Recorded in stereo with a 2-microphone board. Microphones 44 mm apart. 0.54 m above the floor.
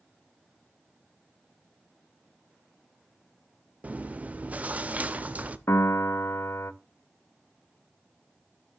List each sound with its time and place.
3.8 s chewing: 35° right (ahead or behind), 0.6 m
5.7 s a piano: 80° left, 0.6 m